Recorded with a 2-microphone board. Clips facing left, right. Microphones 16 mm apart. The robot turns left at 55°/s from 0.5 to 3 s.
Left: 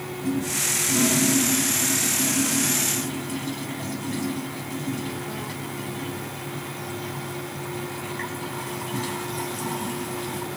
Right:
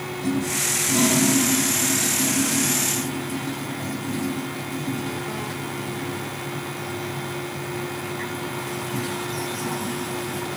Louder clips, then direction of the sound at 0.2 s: Right 1 dB; 70° right (ahead or behind).